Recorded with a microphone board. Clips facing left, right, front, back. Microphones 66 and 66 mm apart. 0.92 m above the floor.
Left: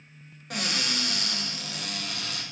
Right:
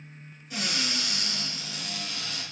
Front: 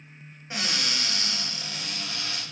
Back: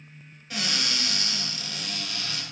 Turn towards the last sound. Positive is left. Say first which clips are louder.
# left 1 dB, even
turn(degrees=65)